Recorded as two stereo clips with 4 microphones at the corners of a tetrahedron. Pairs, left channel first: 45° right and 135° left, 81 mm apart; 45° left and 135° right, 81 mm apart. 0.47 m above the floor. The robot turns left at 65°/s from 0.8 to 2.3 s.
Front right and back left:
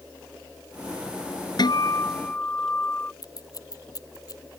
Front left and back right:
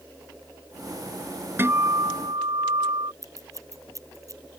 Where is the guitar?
75° right; by 3.1 s 120° right.